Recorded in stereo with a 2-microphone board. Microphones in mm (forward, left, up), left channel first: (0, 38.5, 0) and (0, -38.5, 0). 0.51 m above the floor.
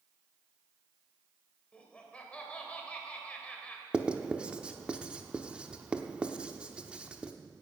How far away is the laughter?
About 2.5 m.